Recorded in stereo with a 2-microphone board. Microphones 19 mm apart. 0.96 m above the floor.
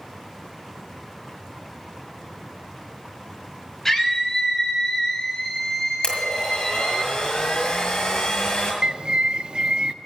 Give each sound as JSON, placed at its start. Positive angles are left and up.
{"t": 3.9, "sound": "a scream", "side_deg": 15, "distance_m": 6.0}
{"t": 6.0, "sound": "a blender", "side_deg": 45, "distance_m": 7.0}
{"t": 8.8, "sound": "a bird", "side_deg": -45, "distance_m": 0.6}